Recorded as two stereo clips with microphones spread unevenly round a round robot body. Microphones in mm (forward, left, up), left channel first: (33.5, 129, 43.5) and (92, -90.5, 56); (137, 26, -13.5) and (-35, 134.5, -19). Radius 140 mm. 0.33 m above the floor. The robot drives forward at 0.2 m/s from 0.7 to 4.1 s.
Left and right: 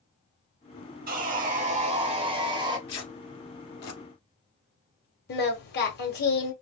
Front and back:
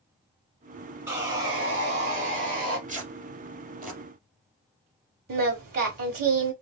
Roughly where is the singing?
Behind left.